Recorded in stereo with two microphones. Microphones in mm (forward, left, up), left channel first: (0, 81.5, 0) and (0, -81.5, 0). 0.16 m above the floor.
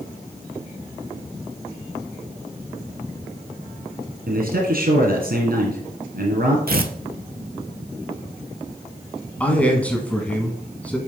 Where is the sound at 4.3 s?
65° right (ahead or behind), 2.5 m.